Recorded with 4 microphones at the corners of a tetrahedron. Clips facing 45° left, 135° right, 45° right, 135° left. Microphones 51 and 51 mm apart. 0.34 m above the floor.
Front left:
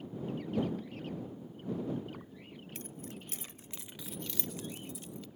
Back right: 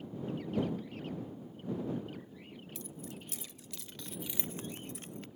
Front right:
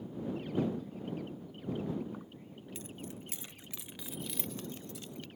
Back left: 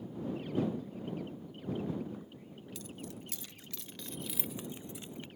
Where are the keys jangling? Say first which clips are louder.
Even, even; 10° left; by 5.3 s 165° right.